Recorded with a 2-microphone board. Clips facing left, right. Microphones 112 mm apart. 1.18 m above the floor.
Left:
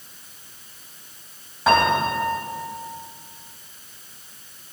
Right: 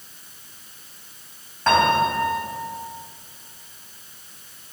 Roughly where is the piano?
Centre.